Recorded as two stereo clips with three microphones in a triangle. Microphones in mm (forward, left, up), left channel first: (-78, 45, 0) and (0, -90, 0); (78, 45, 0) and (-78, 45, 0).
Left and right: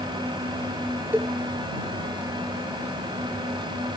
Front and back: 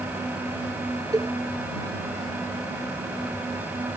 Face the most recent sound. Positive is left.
turn(degrees=-130)